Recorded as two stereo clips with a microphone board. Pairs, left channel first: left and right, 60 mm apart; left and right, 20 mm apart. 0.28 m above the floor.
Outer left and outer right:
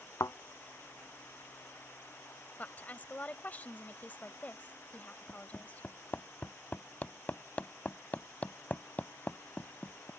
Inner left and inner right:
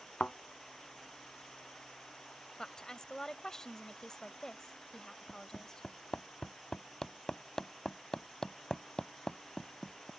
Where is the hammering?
30° left (ahead or behind).